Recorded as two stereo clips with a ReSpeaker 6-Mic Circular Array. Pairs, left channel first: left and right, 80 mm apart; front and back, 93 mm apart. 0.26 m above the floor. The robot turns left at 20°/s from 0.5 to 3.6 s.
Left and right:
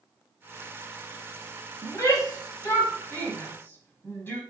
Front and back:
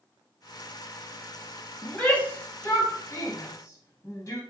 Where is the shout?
70° left, 1.4 m; by 4.4 s 35° left, 1.4 m.